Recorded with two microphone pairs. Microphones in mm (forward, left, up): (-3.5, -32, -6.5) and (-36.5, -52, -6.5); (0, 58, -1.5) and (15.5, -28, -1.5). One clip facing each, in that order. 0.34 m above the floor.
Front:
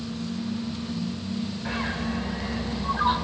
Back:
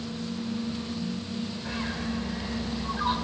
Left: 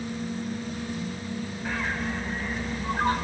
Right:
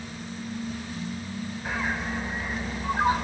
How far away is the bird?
About 0.5 m.